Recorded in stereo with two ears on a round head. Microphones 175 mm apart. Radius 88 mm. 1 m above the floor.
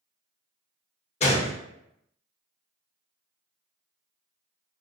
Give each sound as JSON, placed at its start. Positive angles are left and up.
{"t": 1.2, "sound": "a gunshot", "side_deg": 35, "distance_m": 0.8}